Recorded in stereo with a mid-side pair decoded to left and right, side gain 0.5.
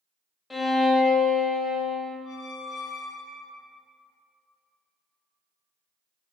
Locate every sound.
0.5 s a violin: 20° left, 0.8 m
2.2 s a squeak: 60° left, 0.8 m